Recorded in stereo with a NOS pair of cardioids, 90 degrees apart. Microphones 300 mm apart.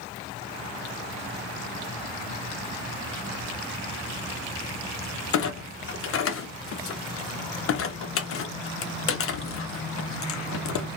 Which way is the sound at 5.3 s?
45° left.